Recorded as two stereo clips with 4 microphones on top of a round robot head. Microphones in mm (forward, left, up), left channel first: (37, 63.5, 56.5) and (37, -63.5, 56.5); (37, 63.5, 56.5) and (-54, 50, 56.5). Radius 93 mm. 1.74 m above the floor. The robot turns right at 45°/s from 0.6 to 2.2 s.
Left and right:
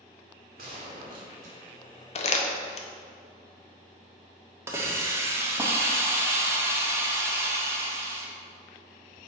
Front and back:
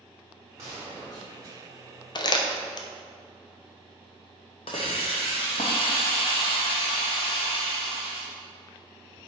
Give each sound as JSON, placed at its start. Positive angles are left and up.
{"t": 0.6, "sound": "a gunshot", "azimuth_deg": -105, "distance_m": 1.4}
{"t": 2.1, "sound": "crumpling", "azimuth_deg": 50, "distance_m": 0.7}
{"t": 4.7, "sound": "a hiss", "azimuth_deg": -25, "distance_m": 0.6}